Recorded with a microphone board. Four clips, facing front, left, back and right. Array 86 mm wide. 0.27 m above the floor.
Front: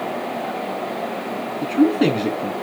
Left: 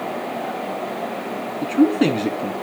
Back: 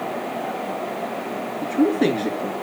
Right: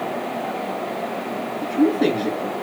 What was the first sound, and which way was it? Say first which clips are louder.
A man speaking: left 2 dB, front 2 dB; 50° left.